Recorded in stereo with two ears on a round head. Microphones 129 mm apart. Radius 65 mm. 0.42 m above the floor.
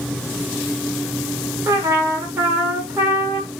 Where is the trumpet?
20° right (ahead or behind), 0.6 m.